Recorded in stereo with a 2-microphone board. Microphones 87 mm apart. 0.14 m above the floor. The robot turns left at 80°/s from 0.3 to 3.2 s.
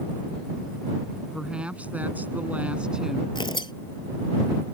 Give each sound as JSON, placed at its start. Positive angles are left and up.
{"t": 1.3, "sound": "a woman speaking", "side_deg": -5}
{"t": 3.4, "sound": "tearing paper", "side_deg": 65}